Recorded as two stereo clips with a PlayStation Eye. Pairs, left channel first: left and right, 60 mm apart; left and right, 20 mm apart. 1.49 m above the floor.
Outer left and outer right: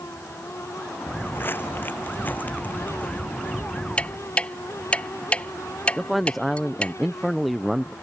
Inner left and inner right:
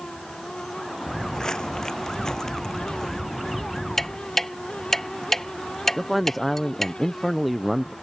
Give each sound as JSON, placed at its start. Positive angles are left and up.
{"t": 1.1, "sound": "footsteps", "side_deg": 40}
{"t": 4.0, "sound": "ticking", "side_deg": 20}
{"t": 6.0, "sound": "a man speaking", "side_deg": 0}